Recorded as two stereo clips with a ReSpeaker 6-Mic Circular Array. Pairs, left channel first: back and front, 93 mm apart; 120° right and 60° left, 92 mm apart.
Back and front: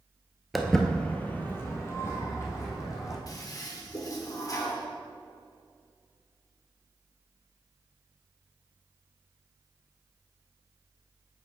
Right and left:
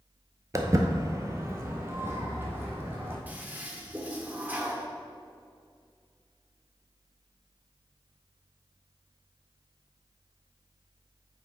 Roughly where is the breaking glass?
No breaking glass in this recording.